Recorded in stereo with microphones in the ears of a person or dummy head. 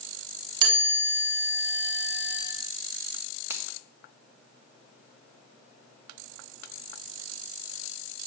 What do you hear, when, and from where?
0.6 s a chime: 55° right (ahead or behind), 1.6 m
3.5 s a finger snap: 20° right (ahead or behind), 0.9 m